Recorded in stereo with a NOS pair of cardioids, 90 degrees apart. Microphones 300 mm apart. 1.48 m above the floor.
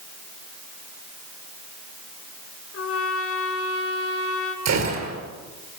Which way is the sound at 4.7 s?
65° right.